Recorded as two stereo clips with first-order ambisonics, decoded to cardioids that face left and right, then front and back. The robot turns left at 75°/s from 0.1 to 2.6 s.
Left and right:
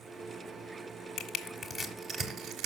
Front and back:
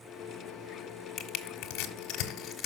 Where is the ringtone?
No ringtone in this recording.